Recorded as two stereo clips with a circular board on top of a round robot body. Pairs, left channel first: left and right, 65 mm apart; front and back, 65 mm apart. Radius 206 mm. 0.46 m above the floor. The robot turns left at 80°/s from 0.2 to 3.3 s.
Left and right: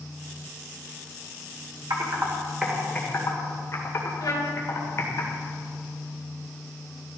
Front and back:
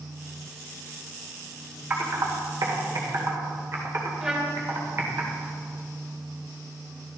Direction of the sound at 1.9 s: 110° right.